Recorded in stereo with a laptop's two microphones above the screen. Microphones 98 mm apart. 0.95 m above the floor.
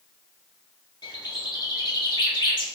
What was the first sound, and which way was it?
A bird, 50° left (ahead or behind).